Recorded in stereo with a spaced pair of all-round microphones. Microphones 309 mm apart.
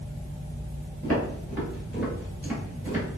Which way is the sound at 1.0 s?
5° left (ahead or behind).